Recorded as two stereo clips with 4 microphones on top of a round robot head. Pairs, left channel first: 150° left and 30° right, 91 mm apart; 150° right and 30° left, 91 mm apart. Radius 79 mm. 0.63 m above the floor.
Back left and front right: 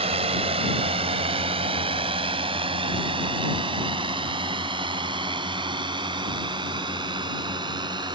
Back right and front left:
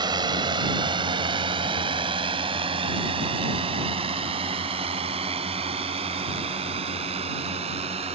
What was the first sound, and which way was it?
A drone, 10° right.